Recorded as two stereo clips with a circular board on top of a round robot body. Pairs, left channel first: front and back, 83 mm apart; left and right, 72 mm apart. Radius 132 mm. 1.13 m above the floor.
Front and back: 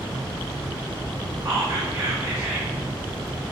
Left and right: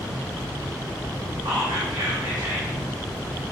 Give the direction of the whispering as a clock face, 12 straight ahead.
4 o'clock.